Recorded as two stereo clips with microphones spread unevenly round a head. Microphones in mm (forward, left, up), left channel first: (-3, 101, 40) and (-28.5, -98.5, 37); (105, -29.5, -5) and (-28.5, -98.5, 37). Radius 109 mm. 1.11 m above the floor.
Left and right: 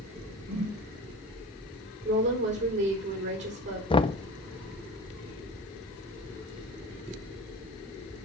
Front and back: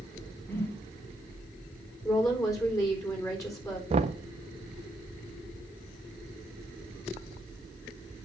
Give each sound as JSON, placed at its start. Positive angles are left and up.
{"t": 0.5, "sound": "a whoosh", "azimuth_deg": -45, "distance_m": 4.0}
{"t": 2.0, "sound": "a woman speaking", "azimuth_deg": -40, "distance_m": 4.0}
{"t": 3.9, "sound": "knocking", "azimuth_deg": 145, "distance_m": 0.5}